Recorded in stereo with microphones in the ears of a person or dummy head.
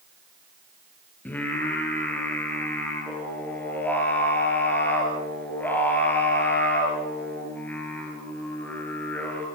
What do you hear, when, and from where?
1.2 s singing: 10° left (ahead or behind), 6.5 m